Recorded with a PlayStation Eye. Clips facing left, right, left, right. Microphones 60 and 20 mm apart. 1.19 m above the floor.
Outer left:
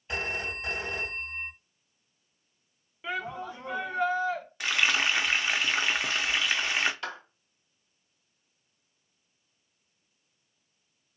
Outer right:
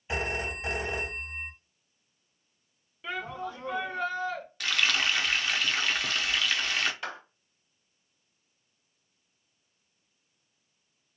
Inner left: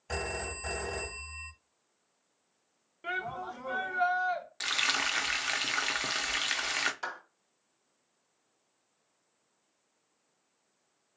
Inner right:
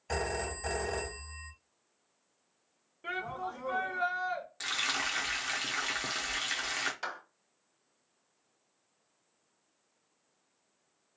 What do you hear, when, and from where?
0.1 s a phone ringing: 10° right (ahead or behind), 2.5 m
3.0 s a shout: 20° left (ahead or behind), 2 m
4.6 s frying: 20° left (ahead or behind), 0.6 m
7.0 s a clap: 5° right (ahead or behind), 2.5 m